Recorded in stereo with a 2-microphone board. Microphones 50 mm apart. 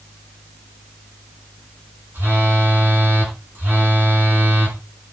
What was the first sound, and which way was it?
A phone buzzing, 40° right (ahead or behind).